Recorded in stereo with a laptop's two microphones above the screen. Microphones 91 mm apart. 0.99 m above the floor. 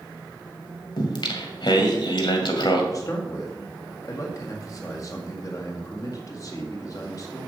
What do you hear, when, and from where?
1.0 s singing: 60° left (ahead or behind), 1.9 m
2.9 s a man speaking: 40° left (ahead or behind), 2 m